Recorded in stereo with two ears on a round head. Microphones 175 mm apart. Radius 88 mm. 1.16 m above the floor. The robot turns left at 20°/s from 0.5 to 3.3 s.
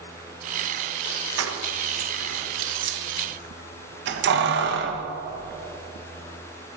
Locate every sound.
1.4 s keys jangling: 80° right, 0.8 m; by 5.1 s 60° right (ahead or behind), 0.8 m